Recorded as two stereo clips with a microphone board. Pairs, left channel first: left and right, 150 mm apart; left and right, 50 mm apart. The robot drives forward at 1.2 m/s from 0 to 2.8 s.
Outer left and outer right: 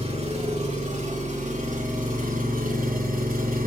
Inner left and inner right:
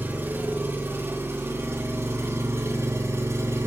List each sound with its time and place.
0.0 s an engine running: 45° right (ahead or behind), 5 m; by 3.7 s 70° right (ahead or behind), 4 m